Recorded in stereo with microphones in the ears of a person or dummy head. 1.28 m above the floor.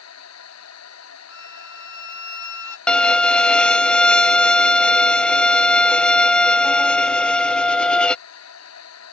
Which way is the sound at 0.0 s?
80° left.